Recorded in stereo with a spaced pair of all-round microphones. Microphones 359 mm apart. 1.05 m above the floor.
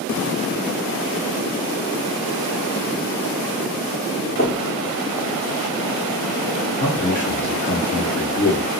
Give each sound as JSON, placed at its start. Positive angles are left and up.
{"t": 4.4, "sound": "knocking", "side_deg": 30, "distance_m": 0.8}
{"t": 6.8, "sound": "a man speaking", "side_deg": 60, "distance_m": 1.7}